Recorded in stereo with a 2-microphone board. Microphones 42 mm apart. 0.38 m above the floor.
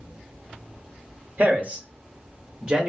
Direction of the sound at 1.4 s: 40° right (ahead or behind).